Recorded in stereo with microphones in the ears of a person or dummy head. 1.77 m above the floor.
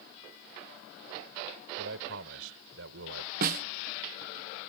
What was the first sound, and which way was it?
A man speaking, 80° right.